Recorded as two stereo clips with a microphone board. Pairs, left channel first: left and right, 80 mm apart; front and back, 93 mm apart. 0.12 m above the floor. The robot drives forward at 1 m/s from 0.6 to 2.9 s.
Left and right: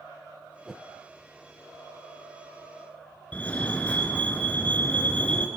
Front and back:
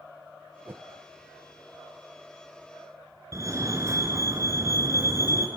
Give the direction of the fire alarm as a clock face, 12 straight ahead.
7 o'clock.